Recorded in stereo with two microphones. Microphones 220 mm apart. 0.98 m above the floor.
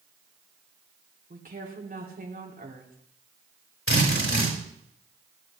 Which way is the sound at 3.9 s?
70° left (ahead or behind).